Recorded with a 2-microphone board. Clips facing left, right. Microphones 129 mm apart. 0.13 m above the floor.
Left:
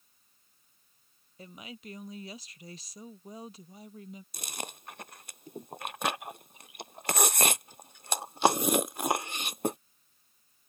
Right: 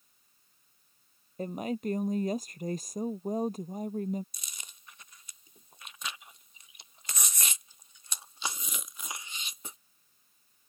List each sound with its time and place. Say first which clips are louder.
1.4 s a woman speaking: right 14 dB; 50° right (ahead or behind)
4.3 s chewing: left 14 dB; 65° left (ahead or behind)